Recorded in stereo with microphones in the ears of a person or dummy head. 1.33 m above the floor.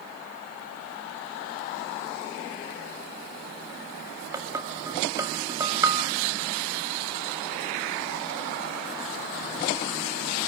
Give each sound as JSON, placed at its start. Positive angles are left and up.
{"t": 4.3, "sound": "dishes clattering", "side_deg": -15, "distance_m": 1.6}